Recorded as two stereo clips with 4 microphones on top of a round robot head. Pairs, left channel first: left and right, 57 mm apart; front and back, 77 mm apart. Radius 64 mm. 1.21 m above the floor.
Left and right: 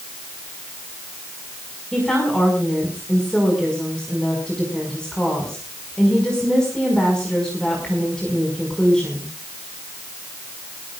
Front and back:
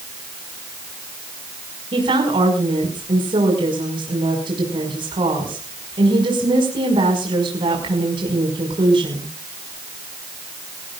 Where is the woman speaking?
170° left, 5.5 m.